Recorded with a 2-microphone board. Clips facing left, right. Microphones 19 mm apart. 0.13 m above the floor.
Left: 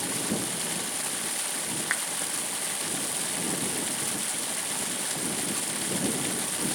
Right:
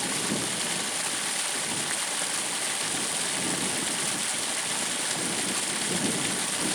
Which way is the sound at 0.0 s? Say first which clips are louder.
Right 2 dB; 10° right (ahead or behind).